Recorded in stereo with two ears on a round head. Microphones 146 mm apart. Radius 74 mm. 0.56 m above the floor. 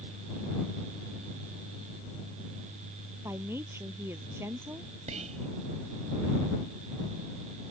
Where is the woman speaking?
15° right (ahead or behind).